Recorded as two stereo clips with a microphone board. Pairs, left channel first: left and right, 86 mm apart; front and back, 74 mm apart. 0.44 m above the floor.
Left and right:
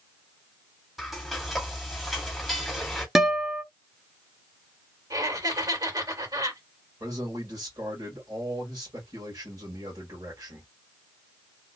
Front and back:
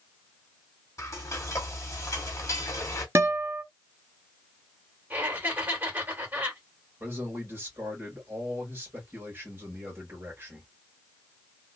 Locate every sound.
1.0 s frying: 5° right, 1.5 m
3.1 s a guitar: 175° right, 0.8 m
5.1 s laughter: 120° right, 2 m
7.0 s a man speaking: 125° right, 1.7 m